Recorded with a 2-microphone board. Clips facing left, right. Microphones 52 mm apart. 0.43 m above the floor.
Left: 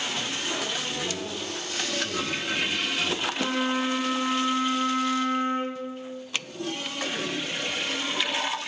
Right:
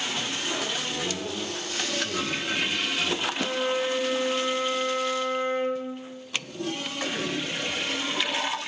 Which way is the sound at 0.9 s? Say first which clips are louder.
Right 1 dB; 15° right (ahead or behind).